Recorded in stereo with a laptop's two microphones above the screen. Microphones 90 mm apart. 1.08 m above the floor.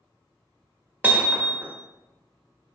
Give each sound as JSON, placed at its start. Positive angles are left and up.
{"t": 1.0, "sound": "hammering", "side_deg": -20, "distance_m": 1.1}